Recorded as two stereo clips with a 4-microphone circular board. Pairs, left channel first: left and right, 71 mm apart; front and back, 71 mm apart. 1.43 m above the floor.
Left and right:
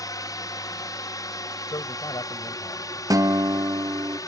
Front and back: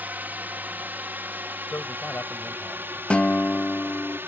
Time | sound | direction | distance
0.0 | a drone | 115° left | ?
1.7 | a man speaking | 65° left | ?
3.1 | a guitar | 70° right | ?